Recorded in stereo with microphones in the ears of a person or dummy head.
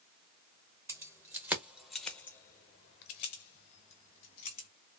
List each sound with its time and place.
0.9 s keys jangling: 20° right (ahead or behind), 1.3 m; by 4.7 s 45° left (ahead or behind), 1.6 m